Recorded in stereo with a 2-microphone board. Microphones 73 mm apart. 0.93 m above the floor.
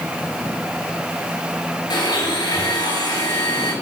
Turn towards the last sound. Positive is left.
turn(degrees=70)  # may be behind; listen again after turning